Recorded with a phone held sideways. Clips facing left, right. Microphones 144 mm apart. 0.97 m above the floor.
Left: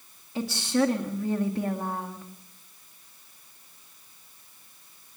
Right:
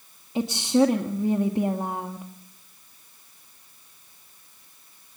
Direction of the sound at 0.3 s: 20° right (ahead or behind).